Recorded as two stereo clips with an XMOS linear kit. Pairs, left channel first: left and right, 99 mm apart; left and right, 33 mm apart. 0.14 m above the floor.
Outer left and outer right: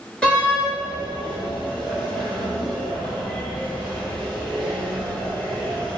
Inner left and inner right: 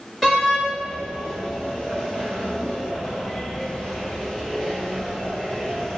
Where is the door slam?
10° left (ahead or behind), 1.4 m.